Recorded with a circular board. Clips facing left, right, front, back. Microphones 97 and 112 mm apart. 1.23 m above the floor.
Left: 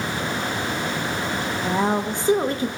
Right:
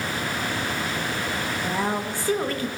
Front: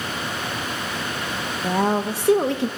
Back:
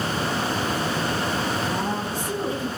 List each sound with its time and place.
1.6 s a woman speaking: 20° left, 1.4 m